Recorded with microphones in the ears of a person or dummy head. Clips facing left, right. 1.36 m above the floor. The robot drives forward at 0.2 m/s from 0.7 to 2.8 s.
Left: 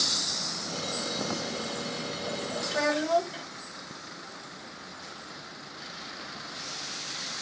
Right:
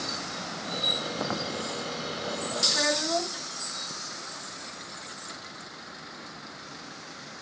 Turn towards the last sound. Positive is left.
turn(degrees=45)  # may be behind; listen again after turning